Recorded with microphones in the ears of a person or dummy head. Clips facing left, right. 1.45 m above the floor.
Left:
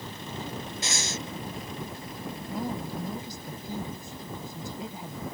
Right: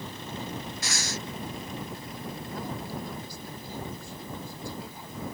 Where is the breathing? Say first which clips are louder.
Left 1 dB; 20° left (ahead or behind).